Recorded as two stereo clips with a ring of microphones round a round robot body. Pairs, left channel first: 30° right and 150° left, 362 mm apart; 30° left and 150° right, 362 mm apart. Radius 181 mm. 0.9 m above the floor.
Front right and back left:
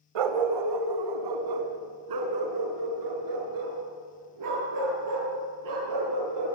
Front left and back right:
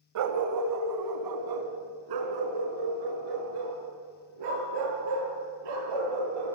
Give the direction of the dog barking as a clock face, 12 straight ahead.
7 o'clock.